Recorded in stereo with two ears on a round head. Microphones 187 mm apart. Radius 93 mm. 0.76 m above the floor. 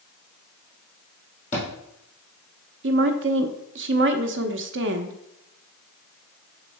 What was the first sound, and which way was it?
A thud, 35° left (ahead or behind).